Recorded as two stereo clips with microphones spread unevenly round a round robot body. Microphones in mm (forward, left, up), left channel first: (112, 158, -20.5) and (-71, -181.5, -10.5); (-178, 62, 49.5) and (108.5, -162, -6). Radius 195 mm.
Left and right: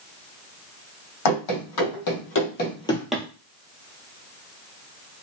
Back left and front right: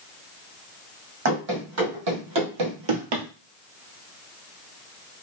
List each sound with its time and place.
1.2 s running footsteps: 30° left, 1.9 m; by 3.2 s 40° right, 1.0 m